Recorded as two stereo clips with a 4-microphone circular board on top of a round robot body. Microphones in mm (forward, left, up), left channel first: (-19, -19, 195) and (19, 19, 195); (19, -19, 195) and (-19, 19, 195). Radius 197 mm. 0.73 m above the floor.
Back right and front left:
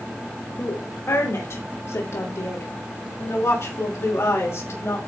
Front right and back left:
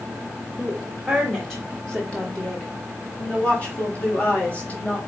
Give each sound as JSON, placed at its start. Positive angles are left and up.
{"t": 0.6, "sound": "a woman speaking", "azimuth_deg": -140, "distance_m": 1.9}